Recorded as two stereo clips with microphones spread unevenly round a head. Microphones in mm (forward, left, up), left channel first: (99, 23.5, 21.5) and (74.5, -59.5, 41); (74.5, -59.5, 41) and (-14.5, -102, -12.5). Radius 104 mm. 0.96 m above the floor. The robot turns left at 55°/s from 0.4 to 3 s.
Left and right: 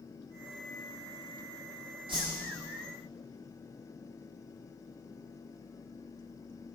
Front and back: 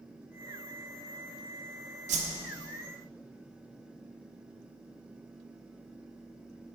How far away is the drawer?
No drawer in this recording.